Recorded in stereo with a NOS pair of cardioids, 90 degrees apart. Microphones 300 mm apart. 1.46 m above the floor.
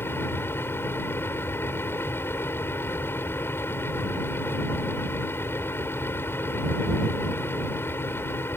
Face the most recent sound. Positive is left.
turn(degrees=5)